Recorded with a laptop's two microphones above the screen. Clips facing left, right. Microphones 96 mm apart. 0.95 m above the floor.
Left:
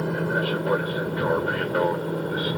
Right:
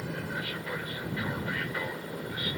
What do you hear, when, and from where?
0.0 s an aircraft: 55° left (ahead or behind); by 2.6 s 50° left (ahead or behind)